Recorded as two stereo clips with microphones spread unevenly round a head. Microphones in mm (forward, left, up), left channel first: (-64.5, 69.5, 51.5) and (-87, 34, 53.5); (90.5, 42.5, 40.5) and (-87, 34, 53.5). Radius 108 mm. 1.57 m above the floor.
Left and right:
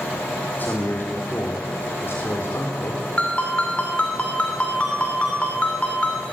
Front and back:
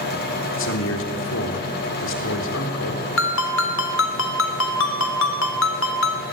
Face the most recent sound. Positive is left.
turn(degrees=-25)